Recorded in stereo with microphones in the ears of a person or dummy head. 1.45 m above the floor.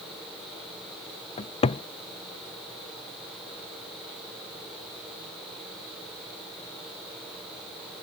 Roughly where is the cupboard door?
Left.